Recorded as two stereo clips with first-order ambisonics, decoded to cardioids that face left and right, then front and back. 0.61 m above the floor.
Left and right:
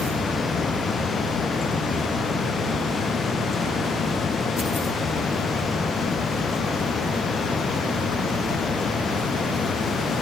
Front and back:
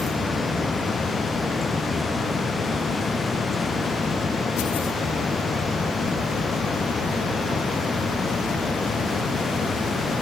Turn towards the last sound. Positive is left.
No sound to turn to.